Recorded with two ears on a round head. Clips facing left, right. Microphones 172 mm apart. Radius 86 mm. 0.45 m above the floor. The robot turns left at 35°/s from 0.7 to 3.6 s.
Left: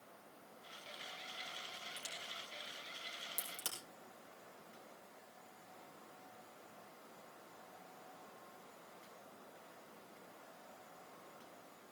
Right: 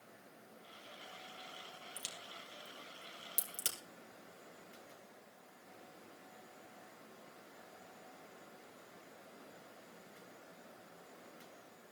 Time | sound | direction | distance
2.0 | a crack | 90° right | 3.5 m